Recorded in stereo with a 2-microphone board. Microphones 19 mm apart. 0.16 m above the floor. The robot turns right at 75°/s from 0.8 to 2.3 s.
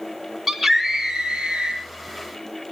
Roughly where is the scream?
Behind.